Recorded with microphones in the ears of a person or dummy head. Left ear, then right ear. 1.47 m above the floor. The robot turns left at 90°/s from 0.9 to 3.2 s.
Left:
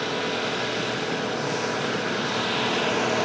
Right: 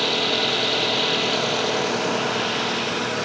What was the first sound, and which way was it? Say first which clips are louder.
An engine running: right 6 dB; 30° right.